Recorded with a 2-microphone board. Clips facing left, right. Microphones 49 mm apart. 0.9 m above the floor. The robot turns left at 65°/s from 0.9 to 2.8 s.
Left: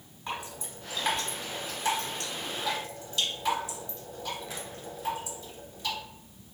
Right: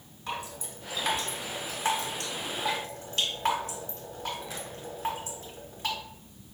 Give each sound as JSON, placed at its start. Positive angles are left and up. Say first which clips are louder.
{"t": 0.3, "sound": "dripping", "louder": "right 1 dB", "side_deg": 15, "distance_m": 1.3}